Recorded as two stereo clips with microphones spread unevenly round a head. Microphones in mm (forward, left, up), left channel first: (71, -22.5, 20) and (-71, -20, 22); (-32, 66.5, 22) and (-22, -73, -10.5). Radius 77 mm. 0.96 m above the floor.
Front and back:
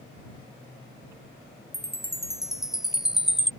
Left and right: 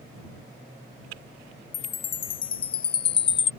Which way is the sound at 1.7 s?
95° left.